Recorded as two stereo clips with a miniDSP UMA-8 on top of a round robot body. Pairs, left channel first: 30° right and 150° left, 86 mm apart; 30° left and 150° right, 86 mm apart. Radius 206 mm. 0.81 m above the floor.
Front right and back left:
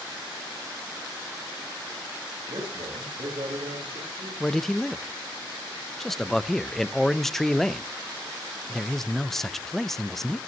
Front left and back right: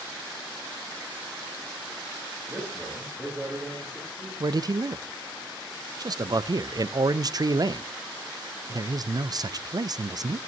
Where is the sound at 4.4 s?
115° right, 0.8 m.